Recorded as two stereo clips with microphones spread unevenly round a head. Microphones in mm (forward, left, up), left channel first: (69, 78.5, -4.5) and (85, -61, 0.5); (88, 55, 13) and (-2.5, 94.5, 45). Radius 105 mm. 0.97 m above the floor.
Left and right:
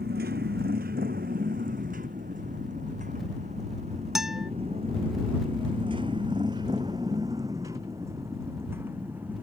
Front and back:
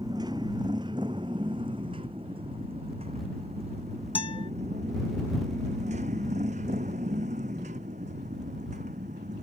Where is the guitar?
5° left.